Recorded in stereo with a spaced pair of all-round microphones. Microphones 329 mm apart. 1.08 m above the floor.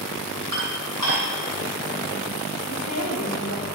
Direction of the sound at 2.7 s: 65° left (ahead or behind).